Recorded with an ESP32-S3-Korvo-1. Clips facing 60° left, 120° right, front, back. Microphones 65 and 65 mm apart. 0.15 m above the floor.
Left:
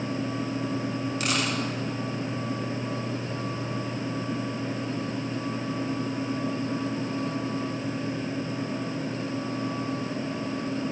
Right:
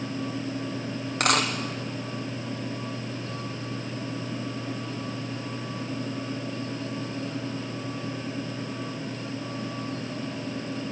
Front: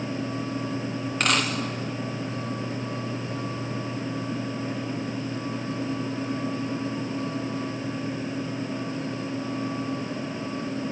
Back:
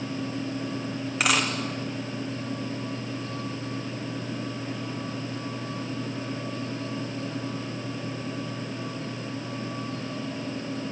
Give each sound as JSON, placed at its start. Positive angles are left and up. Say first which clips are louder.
{"t": 1.2, "sound": "a dropped coin", "louder": "right 6 dB, even", "azimuth_deg": -95, "distance_m": 3.5}